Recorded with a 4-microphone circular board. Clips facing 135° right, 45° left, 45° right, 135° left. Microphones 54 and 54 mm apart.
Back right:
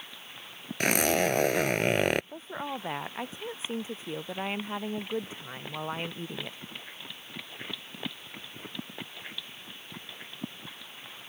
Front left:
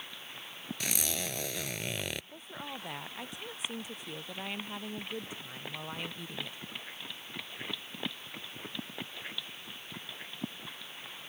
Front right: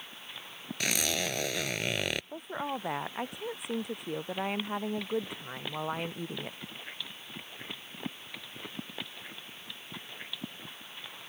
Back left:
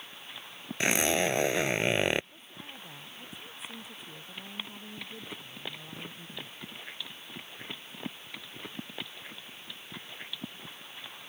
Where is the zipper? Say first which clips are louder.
Back right 13 dB, back left 5 dB; 165° right.